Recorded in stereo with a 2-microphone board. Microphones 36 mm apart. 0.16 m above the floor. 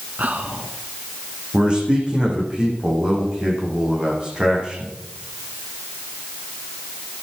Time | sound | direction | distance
0.2 | whispering | 45° right (ahead or behind) | 1.6 m
1.5 | a man speaking | 25° right (ahead or behind) | 9 m